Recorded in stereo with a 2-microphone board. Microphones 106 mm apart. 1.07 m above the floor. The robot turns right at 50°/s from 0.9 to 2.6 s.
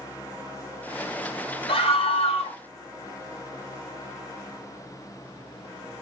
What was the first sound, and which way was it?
A scream, 60° left.